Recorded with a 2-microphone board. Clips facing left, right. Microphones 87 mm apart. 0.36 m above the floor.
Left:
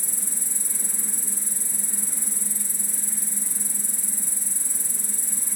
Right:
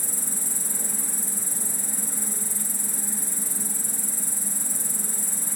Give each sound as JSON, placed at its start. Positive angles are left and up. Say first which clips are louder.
{"t": 0.0, "sound": "an insect", "louder": "right 4 dB", "side_deg": -65, "distance_m": 0.7}